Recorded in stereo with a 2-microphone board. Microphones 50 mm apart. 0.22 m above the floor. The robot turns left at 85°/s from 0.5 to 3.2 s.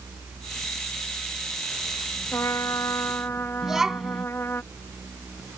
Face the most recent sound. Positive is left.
turn(degrees=-10)  # may be behind; listen again after turning